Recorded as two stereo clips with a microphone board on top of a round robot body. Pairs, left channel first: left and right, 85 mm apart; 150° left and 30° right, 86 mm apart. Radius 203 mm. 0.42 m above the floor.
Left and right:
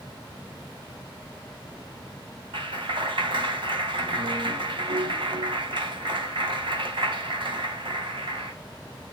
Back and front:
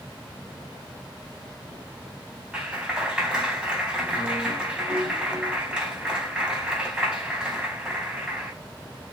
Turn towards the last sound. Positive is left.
turn(degrees=-110)